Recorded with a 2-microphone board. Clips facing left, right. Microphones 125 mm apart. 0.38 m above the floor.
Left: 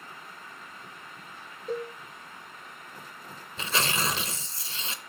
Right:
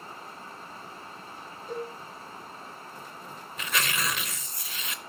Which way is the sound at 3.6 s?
30° left (ahead or behind).